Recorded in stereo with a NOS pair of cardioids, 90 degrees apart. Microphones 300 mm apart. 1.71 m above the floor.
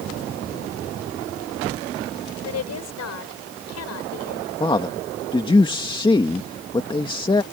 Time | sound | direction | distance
2.5 | a woman speaking | 60° left | ?
4.6 | a man speaking | 15° left | ?